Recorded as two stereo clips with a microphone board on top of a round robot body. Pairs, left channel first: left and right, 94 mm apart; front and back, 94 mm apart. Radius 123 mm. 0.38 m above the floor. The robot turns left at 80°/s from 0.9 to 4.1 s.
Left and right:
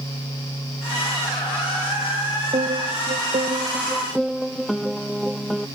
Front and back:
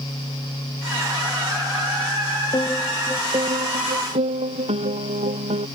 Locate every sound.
2.5 s a piano: 55° right; by 5.7 s straight behind